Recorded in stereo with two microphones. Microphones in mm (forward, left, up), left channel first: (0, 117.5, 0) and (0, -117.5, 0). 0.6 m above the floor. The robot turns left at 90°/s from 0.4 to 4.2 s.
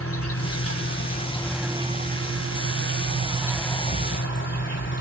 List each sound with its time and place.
0.0 s an insect: 105° left, 1.6 m; by 5.0 s 125° left, 1.6 m